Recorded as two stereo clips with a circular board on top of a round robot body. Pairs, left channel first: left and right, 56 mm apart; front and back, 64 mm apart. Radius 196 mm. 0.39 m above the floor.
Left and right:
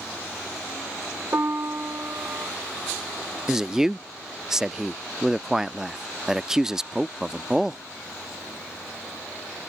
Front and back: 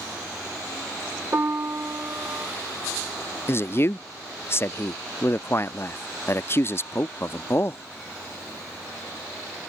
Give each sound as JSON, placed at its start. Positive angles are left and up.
{"t": 1.3, "sound": "a piano", "azimuth_deg": -130}
{"t": 3.5, "sound": "a man speaking", "azimuth_deg": -15}